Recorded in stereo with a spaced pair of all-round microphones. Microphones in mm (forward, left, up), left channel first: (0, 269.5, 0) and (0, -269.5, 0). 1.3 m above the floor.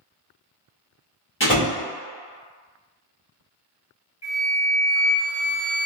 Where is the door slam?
20° left (ahead or behind), 1.0 m.